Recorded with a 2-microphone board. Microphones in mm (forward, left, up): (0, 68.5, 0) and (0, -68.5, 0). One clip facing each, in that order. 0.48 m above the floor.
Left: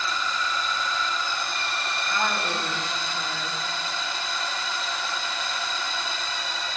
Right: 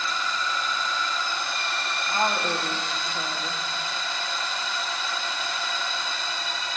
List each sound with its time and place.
2.1 s a woman speaking: 35° right (ahead or behind), 2.5 m